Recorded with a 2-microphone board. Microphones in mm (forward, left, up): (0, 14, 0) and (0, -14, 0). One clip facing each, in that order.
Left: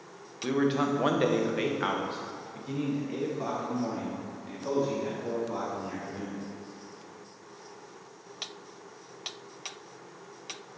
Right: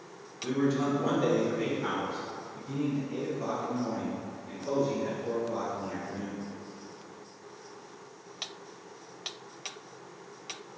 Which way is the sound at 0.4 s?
40° left (ahead or behind).